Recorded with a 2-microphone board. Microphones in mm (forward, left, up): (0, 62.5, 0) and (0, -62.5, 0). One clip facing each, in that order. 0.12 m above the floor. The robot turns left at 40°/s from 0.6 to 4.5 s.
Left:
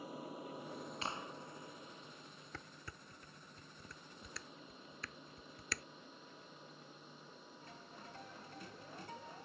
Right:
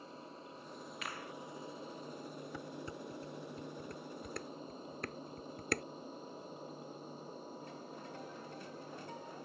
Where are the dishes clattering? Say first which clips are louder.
Right 7 dB; 15° right (ahead or behind); by 5.8 s 55° right (ahead or behind).